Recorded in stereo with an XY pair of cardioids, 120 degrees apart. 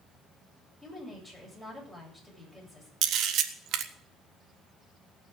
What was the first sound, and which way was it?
A woman speaking, straight ahead.